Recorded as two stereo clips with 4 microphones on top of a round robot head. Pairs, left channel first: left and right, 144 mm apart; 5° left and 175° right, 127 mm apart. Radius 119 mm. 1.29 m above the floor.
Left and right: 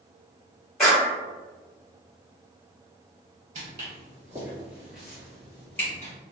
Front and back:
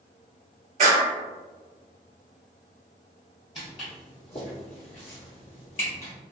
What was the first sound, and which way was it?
A clap, 175° left.